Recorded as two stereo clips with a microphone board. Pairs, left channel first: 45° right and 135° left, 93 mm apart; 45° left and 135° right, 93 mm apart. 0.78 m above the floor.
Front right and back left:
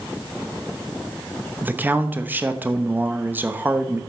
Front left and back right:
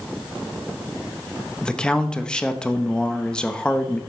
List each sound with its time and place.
1.6 s a man speaking: 110° left, 0.7 m